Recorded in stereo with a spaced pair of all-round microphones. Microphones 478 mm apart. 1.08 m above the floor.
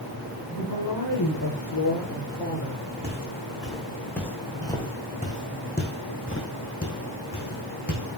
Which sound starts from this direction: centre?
Footsteps, at 3.0 s.